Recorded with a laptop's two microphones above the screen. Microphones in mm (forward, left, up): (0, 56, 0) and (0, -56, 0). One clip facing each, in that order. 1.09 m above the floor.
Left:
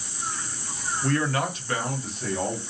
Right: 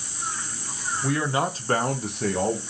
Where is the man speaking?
5° right (ahead or behind), 0.8 m; by 2.6 s 70° right (ahead or behind), 0.9 m.